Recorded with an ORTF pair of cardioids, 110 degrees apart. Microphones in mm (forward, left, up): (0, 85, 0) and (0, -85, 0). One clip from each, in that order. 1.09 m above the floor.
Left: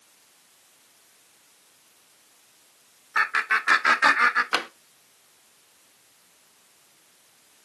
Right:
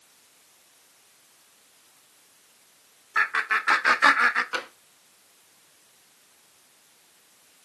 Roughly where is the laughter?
Ahead.